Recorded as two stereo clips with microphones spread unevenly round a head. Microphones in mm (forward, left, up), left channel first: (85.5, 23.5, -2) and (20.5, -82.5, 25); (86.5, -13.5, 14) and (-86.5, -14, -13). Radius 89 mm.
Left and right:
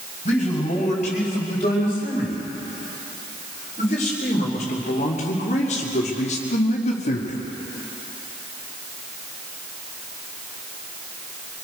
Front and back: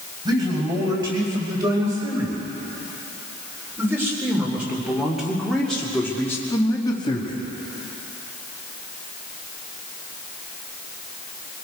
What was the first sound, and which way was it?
A man speaking, 110° left.